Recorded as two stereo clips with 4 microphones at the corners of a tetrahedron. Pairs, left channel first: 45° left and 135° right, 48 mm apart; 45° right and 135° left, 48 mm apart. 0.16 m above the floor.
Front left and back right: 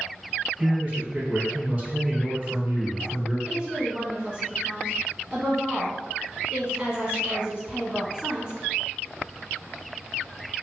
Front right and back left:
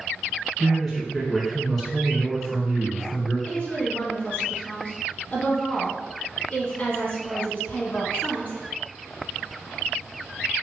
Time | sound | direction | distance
0.6 | a man speaking | 130° right | 1.1 m
3.5 | a woman speaking | 75° right | 1.5 m